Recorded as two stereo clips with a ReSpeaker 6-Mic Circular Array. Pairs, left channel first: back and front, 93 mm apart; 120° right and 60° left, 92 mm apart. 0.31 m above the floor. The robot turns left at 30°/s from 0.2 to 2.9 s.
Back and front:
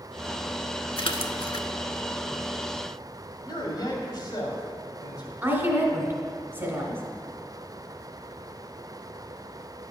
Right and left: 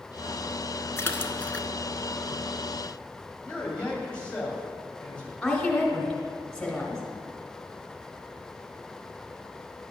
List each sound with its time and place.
1.0 s a splash: straight behind, 0.5 m; by 1.7 s 160° left, 0.5 m
3.4 s a man speaking: 165° left, 2 m
5.4 s a woman speaking: 40° right, 1.6 m